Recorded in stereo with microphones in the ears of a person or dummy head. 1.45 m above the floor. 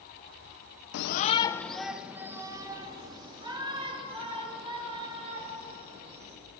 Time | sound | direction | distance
0.9 | a shout | 65° left (ahead or behind) | 0.7 m